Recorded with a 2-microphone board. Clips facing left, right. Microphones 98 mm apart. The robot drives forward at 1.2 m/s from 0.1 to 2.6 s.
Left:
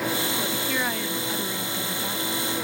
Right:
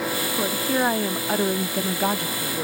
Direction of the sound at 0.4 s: 30° right (ahead or behind).